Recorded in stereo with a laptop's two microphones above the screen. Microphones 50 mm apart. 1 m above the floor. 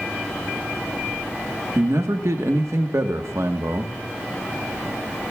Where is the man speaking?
80° right, 1.4 m.